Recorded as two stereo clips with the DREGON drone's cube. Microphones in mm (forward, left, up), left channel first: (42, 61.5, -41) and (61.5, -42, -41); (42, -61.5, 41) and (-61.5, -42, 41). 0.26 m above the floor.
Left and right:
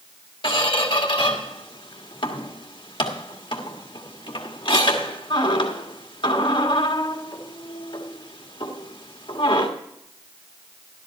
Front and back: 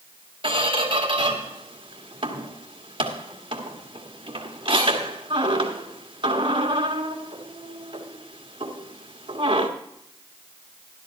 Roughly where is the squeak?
Behind left.